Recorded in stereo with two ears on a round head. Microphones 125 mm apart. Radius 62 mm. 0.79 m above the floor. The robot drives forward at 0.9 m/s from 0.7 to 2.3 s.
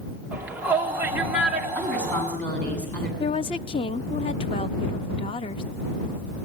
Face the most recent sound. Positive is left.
turn(degrees=40)  # may be behind; listen again after turning